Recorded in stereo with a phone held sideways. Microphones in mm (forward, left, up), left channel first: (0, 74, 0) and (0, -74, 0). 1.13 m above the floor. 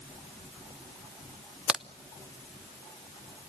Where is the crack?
5° right (ahead or behind), 0.6 m.